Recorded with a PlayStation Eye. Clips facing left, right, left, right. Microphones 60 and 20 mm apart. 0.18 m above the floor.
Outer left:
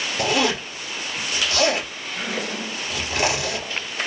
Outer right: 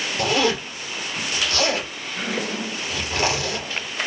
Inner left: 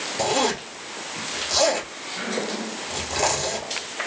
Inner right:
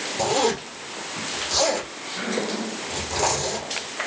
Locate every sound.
0.2 s a zipper: 15° left (ahead or behind), 1.6 m